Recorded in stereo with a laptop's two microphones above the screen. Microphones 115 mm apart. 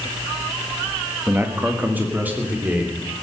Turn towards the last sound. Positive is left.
turn(degrees=-15)  # may be behind; listen again after turning